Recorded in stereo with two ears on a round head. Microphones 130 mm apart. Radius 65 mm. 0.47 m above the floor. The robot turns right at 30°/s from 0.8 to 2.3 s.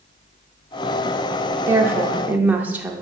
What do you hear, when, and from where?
1.7 s a woman speaking: 15° right (ahead or behind), 0.7 m; by 3.0 s 10° right (ahead or behind), 0.7 m